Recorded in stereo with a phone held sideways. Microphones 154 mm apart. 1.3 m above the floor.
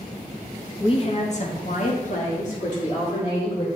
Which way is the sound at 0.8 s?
30° left (ahead or behind).